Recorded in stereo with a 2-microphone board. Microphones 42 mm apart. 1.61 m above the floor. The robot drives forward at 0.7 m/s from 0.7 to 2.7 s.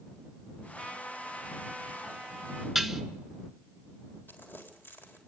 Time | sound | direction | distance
0.8 | a trumpet | 20° left (ahead or behind) | 2.5 m
2.8 | dishes clattering | centre (ahead or behind) | 1.0 m
4.3 | crumpling | 55° left (ahead or behind) | 3.5 m